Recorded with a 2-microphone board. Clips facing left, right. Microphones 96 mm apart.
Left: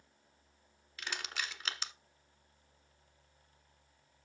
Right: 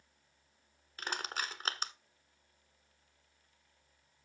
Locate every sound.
1.0 s crushing: 40° right (ahead or behind), 1.2 m